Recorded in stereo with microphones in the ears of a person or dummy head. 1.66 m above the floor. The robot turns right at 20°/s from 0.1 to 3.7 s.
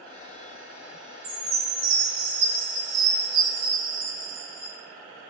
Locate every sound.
1.2 s a chime: 60° right, 1.9 m; by 4.7 s 10° right, 1.9 m